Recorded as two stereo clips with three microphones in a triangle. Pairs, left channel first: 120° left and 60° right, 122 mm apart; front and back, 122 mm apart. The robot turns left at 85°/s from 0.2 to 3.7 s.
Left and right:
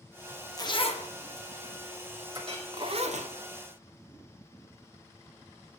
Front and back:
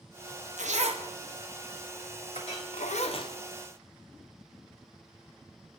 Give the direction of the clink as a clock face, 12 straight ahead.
12 o'clock.